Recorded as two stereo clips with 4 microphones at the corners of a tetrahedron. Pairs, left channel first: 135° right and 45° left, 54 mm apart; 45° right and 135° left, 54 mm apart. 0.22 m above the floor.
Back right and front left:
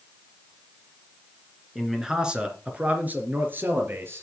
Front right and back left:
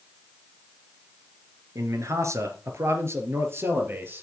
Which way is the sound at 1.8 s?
130° left.